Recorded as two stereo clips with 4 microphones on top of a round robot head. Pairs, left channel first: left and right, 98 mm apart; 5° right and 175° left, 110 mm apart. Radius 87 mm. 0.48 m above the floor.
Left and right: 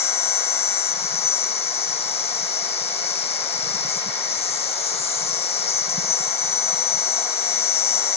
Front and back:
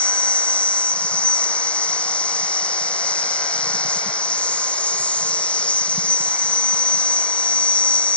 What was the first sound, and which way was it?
An insect, 75° left.